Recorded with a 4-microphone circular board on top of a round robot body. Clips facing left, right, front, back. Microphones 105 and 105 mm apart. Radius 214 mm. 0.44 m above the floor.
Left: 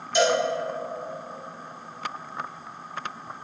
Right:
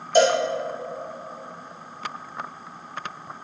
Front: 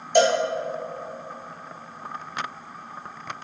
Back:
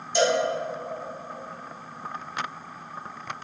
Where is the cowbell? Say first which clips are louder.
Right 4 dB, front 4 dB; 40° right, 0.7 m.